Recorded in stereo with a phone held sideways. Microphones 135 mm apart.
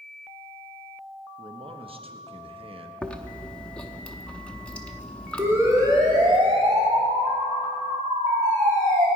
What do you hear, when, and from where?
1.4 s a man speaking: 45° right (ahead or behind), 1.1 m
3.0 s chewing: 10° left (ahead or behind), 0.8 m
5.4 s a siren: 15° right (ahead or behind), 2.5 m; by 9.1 s 75° right (ahead or behind), 4.5 m